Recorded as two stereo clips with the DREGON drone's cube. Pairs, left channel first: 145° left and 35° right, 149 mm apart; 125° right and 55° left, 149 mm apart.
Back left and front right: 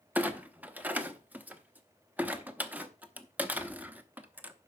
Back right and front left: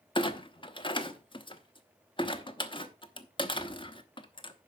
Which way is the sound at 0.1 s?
105° right.